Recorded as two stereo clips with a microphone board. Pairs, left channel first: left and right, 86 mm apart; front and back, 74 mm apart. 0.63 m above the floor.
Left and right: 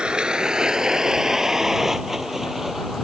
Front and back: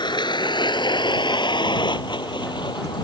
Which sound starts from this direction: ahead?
A vehicle, at 0.0 s.